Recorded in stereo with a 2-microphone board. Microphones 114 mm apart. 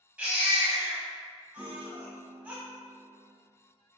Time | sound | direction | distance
0.2 | a baby crying | 15° right (ahead or behind) | 0.7 m
1.6 | a piano | 80° left | 0.9 m